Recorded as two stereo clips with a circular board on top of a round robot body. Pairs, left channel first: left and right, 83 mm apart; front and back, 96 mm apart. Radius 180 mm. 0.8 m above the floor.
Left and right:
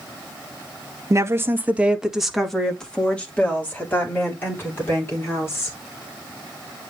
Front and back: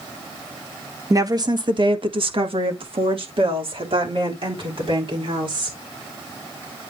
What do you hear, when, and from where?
1.1 s a woman speaking: 130° right, 1.5 m; by 5.8 s 150° left, 5 m